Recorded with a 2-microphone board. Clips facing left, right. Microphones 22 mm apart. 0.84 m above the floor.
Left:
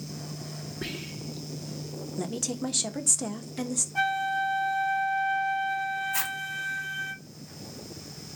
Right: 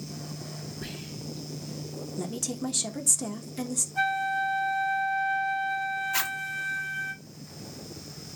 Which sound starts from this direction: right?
A zipper, at 6.1 s.